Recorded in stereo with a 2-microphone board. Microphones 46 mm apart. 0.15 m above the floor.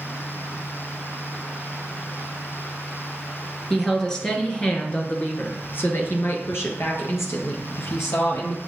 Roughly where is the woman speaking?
Centre.